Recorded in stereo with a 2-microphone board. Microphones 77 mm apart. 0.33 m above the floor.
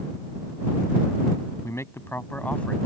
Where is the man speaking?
40° left (ahead or behind); by 2.9 s 10° left (ahead or behind).